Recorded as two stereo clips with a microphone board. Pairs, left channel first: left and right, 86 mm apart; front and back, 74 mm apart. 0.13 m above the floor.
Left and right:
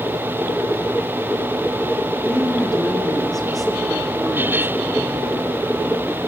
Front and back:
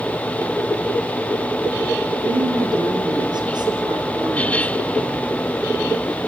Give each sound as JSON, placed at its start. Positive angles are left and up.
{"t": 2.2, "sound": "a woman speaking", "azimuth_deg": 170, "distance_m": 7.5}